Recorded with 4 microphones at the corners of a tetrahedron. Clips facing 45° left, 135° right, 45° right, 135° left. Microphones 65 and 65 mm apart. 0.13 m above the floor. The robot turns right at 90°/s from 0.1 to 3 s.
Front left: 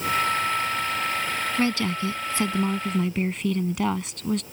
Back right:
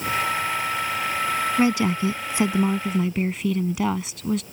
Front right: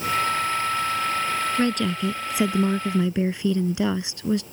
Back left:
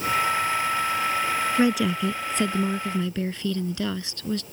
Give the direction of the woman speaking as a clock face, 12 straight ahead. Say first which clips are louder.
Back right 4 dB, back left 4 dB; 6 o'clock.